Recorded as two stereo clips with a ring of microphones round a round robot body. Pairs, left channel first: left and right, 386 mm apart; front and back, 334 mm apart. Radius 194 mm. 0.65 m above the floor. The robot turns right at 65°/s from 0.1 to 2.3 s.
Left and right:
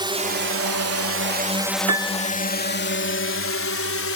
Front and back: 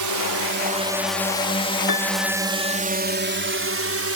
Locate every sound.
0.0 s a drone: 165° right; by 4.2 s 140° left
1.9 s a piano: 40° right; by 2.8 s 10° right